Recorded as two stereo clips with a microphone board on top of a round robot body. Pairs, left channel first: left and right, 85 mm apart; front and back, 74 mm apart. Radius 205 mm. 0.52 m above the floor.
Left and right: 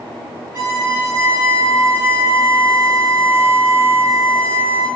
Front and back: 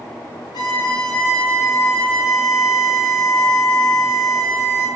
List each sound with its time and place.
0.5 s a violin: 25° right, 0.8 m